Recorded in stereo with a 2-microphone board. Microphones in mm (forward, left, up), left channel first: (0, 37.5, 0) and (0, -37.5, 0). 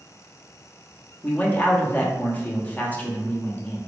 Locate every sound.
1.2 s a man speaking: 25° left (ahead or behind), 0.6 m